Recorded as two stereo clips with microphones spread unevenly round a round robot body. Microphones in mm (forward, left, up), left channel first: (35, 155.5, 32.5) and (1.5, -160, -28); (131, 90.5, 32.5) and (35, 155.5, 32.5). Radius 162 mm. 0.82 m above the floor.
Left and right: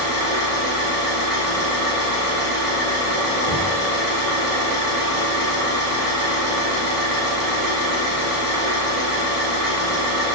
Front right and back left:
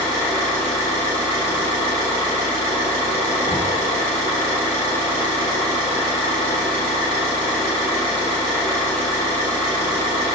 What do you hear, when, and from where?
0.0 s an engine running: 115° right, 1.7 m
3.4 s knocking: 120° right, 1.6 m